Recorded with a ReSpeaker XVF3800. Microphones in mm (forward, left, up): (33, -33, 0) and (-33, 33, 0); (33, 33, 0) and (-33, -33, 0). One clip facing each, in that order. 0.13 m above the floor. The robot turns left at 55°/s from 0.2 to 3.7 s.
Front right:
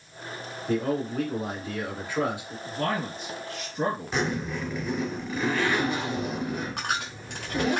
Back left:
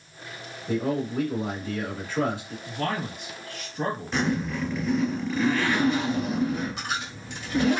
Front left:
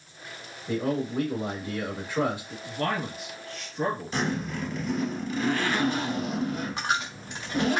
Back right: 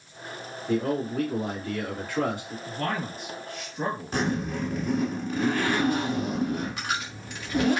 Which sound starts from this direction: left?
A man speaking, at 0.7 s.